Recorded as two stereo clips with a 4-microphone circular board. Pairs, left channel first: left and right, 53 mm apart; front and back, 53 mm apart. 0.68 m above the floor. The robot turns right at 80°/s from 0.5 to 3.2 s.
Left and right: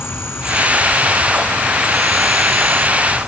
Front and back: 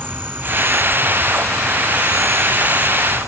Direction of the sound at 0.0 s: 130° left.